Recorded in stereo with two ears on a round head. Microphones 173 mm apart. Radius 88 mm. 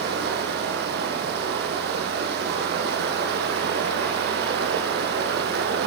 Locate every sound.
0.0 s running water: 55° right (ahead or behind), 5 m